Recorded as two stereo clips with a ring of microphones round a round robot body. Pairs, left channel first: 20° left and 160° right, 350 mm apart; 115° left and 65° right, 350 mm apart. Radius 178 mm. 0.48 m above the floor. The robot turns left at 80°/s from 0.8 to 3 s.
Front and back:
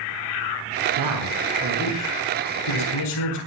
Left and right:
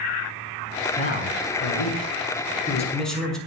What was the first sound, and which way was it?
A man speaking, 175° right.